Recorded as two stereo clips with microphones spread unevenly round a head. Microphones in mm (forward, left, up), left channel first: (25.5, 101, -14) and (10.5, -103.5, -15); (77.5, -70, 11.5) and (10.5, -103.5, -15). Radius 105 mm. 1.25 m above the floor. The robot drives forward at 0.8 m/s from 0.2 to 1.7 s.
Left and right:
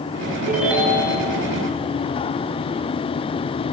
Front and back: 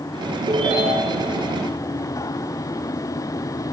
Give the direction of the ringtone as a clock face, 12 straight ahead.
6 o'clock.